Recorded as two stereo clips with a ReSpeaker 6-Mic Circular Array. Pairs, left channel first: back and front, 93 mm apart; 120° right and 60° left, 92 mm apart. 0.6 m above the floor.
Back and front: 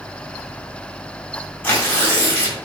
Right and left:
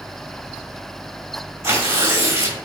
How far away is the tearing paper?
About 1.4 m.